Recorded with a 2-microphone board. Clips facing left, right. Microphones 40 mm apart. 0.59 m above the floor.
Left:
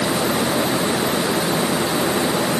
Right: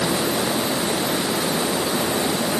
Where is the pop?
I don't hear a pop.